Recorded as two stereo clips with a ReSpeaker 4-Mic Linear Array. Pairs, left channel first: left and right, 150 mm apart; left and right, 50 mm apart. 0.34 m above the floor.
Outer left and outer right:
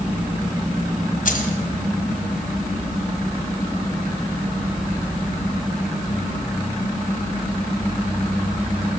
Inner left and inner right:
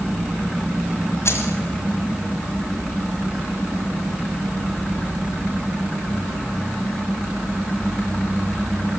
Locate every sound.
1.2 s keys jangling: 65° left (ahead or behind), 1.5 m